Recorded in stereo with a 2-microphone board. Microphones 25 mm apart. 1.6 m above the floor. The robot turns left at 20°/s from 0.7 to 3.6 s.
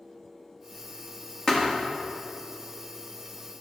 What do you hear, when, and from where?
1.5 s a thud: 30° left (ahead or behind), 1.1 m